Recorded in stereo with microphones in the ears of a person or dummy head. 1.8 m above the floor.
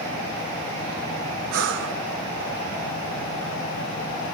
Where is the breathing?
70° right (ahead or behind), 1.4 m.